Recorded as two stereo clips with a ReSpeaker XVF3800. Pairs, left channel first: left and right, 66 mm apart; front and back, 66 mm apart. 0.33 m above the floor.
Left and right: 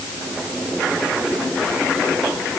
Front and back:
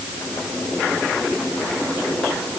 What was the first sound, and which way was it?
Only background noise.